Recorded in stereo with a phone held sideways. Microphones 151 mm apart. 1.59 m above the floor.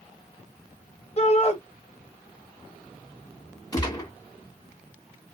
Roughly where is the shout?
Left.